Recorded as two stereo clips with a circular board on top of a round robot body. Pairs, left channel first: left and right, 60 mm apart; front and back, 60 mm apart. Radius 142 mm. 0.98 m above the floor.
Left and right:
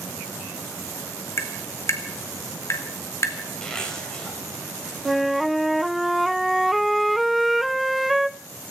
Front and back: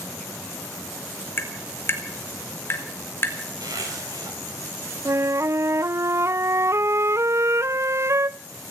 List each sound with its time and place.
1.4 s tapping: 50° left, 3 m
3.6 s a zipper: 165° left, 5 m
5.0 s a flute: straight behind, 0.6 m